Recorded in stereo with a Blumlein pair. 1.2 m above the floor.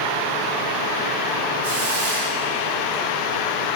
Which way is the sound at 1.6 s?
55° right.